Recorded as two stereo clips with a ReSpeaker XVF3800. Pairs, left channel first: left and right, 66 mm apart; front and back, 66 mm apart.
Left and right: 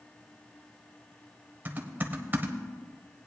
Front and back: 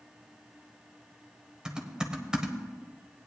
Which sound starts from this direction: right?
Typing on a keyboard, at 1.6 s.